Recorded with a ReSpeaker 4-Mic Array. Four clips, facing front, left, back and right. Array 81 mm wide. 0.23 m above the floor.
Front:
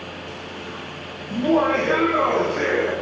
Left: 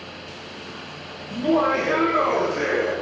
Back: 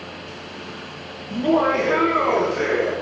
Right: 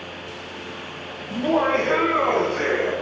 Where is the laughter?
85° right, 1.1 m; by 2.9 s 15° right, 1.4 m.